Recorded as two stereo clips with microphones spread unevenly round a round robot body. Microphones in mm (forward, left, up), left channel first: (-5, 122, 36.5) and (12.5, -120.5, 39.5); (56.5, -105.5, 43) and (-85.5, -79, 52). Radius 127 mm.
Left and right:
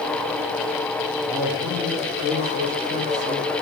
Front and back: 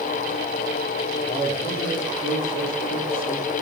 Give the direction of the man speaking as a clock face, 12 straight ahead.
12 o'clock.